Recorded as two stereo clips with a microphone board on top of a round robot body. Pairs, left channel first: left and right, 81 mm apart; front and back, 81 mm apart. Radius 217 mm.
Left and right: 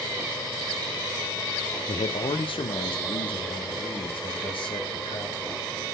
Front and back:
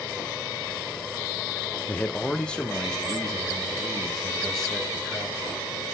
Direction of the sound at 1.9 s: 75° left.